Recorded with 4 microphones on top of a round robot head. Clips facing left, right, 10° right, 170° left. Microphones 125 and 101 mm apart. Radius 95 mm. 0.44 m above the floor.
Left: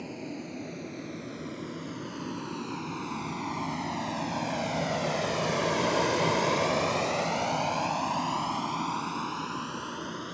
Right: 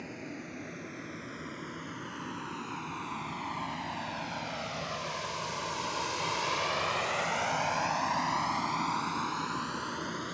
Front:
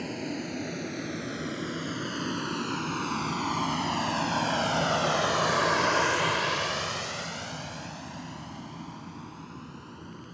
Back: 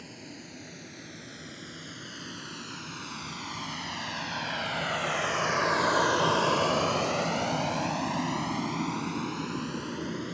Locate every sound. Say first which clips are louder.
0.0 s a vehicle: left 4 dB, front 12 dB; 20° left; by 10.3 s 175° left